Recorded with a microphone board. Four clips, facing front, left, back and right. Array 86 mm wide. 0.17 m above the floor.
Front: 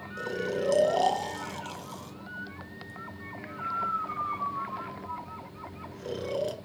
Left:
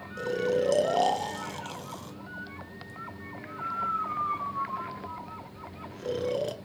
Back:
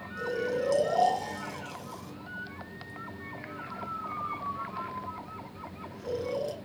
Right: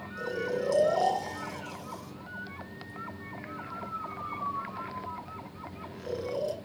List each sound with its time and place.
0.2 s snoring: 60° left, 0.8 m